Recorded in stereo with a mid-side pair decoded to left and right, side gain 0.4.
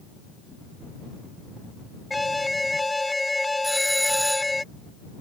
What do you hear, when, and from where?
2.1 s an alarm: 15° left
3.6 s a doorbell: 10° right